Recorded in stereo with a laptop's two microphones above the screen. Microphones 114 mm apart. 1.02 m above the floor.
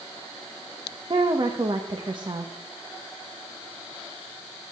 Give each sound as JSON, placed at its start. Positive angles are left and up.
{"t": 1.1, "sound": "a woman speaking", "side_deg": -45, "distance_m": 1.1}